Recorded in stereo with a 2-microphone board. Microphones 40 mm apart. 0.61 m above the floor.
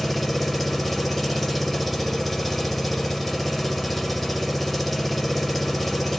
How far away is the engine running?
About 1.1 m.